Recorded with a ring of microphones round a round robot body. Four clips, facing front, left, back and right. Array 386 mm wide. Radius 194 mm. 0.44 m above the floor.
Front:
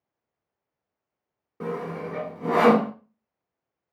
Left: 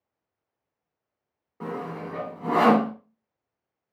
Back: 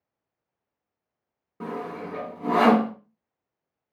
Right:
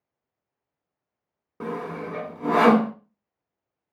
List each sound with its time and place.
1.6 s sawing: 85° right, 1.0 m